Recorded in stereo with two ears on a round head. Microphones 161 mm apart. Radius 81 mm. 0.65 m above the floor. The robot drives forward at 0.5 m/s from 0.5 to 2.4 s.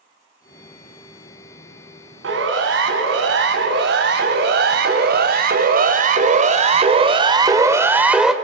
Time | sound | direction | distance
2.2 | a siren | 80° right | 7.5 m